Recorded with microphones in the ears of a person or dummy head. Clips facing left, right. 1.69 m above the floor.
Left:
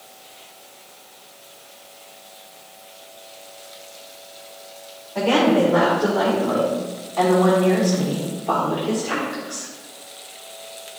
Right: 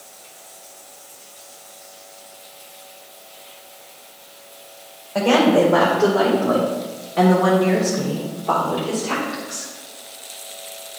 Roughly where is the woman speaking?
Right.